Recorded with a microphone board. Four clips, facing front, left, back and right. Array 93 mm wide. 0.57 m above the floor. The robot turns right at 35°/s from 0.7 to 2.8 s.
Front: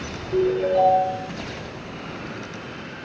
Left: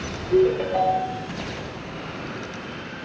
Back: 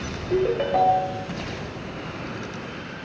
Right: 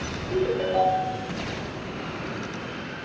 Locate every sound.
0.3 s a ringtone: 170° left, 2 m; by 1.3 s 170° right, 2 m